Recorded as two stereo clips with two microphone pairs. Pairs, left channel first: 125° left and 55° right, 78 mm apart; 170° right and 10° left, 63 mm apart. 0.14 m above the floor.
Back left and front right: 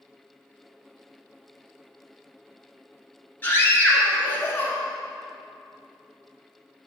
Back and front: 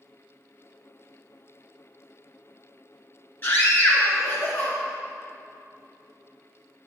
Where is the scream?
170° left, 1.3 m.